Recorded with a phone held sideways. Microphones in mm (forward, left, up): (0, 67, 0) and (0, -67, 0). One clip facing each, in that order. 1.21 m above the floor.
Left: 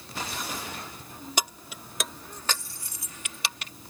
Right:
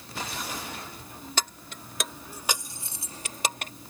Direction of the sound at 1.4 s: 15° left (ahead or behind).